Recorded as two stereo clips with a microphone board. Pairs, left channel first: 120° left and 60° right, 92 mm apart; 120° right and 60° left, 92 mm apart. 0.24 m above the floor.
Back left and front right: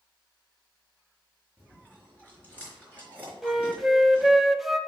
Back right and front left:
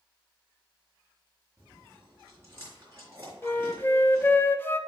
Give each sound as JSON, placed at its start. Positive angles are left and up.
{"t": 1.6, "sound": "chewing", "azimuth_deg": 5, "distance_m": 4.0}
{"t": 3.4, "sound": "a flute", "azimuth_deg": -150, "distance_m": 0.5}